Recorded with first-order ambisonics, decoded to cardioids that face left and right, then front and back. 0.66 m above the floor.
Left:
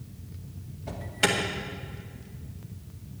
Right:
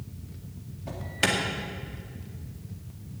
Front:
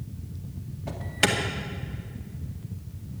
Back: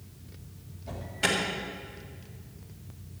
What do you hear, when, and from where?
0.9 s an alarm: 10° right, 2 m